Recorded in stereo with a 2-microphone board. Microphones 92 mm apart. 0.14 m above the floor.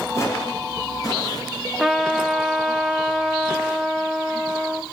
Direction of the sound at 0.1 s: 35° left (ahead or behind).